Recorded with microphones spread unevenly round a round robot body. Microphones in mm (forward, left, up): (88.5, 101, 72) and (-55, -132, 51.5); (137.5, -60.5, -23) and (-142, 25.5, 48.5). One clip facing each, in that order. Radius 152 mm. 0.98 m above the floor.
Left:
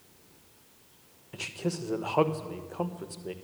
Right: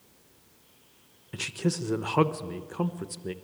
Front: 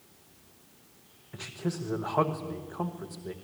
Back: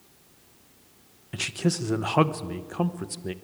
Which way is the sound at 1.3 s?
170° right.